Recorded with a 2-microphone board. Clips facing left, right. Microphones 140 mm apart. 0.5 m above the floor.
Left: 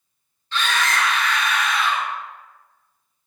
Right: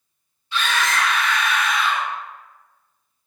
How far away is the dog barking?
No dog barking in this recording.